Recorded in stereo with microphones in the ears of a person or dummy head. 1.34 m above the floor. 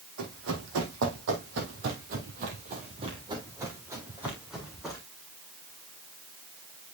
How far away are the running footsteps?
About 3 m.